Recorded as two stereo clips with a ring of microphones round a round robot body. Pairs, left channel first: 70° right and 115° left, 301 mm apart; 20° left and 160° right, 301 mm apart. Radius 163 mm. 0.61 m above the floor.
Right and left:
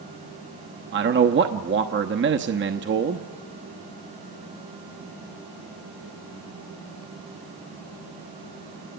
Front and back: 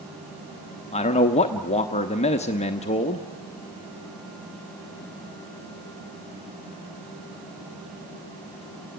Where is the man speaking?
80° left, 1.0 m.